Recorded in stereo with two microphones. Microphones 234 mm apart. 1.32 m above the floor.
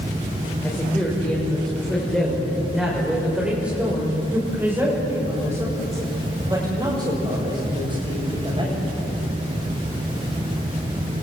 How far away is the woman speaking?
About 6 m.